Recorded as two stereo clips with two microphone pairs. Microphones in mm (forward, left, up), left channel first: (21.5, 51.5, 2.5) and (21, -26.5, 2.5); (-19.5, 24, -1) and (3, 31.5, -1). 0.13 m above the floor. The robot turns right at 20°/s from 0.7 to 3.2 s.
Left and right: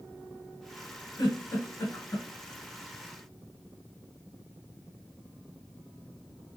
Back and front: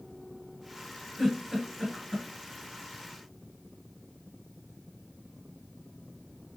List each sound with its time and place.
1.2 s a giggle: 110° left, 1.5 m; by 2.3 s 130° left, 1.5 m